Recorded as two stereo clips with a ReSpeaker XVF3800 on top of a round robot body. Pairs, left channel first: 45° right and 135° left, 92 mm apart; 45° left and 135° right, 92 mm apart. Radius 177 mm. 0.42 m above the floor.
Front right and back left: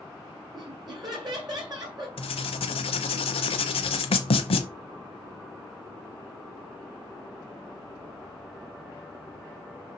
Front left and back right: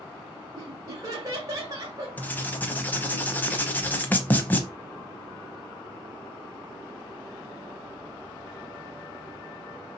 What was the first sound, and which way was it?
Laughter, 175° left.